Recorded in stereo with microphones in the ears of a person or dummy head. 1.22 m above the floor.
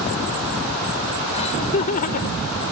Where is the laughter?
35° left (ahead or behind); by 2.5 s 55° left (ahead or behind).